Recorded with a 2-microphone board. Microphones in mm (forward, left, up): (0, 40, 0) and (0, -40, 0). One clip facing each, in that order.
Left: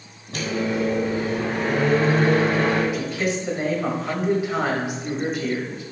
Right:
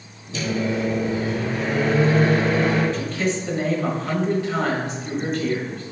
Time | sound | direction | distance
0.3 | a microwave | 50° left (ahead or behind) | 1.9 m
2.9 | a man speaking | 10° left (ahead or behind) | 1.3 m